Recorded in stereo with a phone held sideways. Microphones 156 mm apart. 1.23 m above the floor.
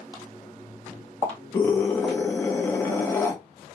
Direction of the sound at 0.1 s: 30° left (ahead or behind).